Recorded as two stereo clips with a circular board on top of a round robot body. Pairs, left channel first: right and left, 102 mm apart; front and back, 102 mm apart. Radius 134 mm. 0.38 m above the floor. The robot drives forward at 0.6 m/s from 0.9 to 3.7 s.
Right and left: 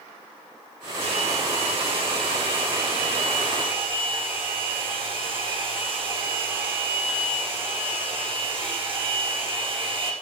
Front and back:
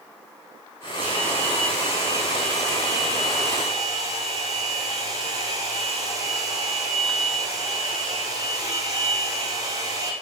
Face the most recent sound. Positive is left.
turn(degrees=125)